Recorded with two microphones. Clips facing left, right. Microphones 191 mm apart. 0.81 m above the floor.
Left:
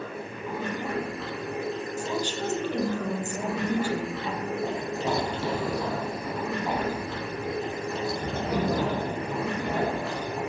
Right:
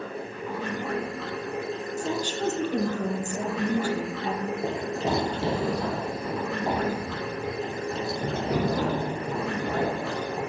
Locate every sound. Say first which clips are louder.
0.0 s running water: right 1 dB; 5° left (ahead or behind), 5 m
2.0 s a woman speaking: right 2 dB; 40° right (ahead or behind), 1.5 m
4.6 s running footsteps: right 1 dB; 20° right (ahead or behind), 0.8 m; by 10.4 s 25° right (ahead or behind), 4.5 m